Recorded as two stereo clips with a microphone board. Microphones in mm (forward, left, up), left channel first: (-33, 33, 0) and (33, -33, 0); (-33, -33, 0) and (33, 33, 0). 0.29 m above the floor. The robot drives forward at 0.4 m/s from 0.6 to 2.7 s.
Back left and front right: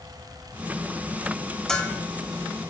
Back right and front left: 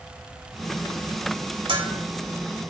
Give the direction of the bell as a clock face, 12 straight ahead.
10 o'clock.